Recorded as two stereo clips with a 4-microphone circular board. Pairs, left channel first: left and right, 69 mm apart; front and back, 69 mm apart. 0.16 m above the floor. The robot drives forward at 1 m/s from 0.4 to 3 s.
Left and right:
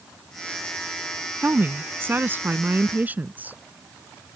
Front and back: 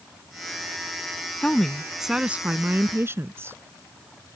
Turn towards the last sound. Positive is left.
turn(degrees=-145)